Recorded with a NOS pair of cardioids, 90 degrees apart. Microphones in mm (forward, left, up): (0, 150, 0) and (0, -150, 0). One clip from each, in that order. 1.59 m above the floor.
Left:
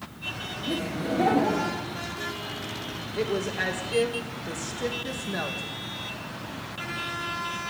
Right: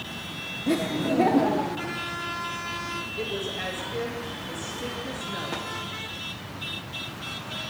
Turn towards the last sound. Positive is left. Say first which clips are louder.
# left 7 dB
turn(degrees=40)